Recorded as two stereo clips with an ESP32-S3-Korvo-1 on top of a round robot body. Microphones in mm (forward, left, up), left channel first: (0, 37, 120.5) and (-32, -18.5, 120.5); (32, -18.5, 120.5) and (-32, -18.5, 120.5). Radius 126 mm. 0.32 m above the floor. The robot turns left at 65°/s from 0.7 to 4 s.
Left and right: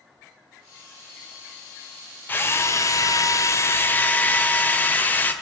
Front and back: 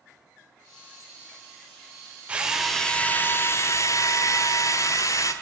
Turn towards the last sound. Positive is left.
turn(degrees=5)